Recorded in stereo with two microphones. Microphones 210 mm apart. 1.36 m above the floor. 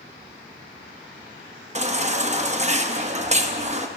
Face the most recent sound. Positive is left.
turn(degrees=-35)  # may be behind; listen again after turning